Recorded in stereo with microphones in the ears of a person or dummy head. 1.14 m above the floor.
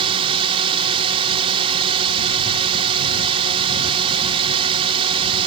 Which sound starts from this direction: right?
A drone, at 0.0 s.